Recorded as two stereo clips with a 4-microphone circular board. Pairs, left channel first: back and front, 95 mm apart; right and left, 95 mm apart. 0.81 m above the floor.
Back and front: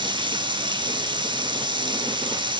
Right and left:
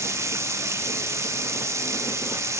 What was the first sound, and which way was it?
Running water, 30° left.